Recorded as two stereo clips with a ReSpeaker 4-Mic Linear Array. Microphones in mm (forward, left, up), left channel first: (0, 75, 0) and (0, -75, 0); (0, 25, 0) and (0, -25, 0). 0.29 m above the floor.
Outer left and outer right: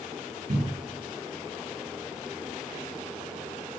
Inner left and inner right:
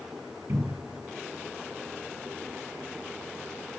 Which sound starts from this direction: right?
A cupboard door, at 0.5 s.